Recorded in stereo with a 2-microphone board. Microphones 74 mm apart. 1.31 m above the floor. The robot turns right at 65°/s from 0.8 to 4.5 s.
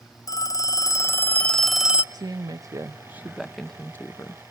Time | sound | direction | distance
0.3 | a phone ringing | 120° left | 0.6 m
2.1 | a woman speaking | 90° right | 0.8 m